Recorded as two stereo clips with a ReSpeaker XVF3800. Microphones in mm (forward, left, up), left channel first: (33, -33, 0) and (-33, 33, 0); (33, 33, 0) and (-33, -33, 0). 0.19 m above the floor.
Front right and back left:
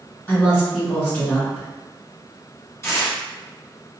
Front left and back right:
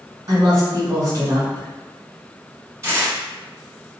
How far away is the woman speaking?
About 1.6 m.